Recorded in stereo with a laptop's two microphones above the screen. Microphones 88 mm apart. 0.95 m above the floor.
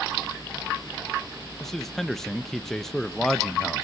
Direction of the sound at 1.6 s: 5° left (ahead or behind).